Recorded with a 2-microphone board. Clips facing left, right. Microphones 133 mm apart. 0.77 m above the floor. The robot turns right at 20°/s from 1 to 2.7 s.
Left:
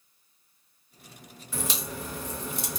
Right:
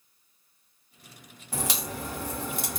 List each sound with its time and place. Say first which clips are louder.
1.5 s a crack: right 1 dB; 80° right, 1.5 m; by 2.8 s 60° right (ahead or behind), 1.5 m